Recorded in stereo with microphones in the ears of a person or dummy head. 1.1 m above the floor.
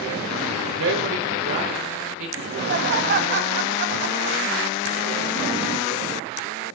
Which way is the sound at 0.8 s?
70° right (ahead or behind).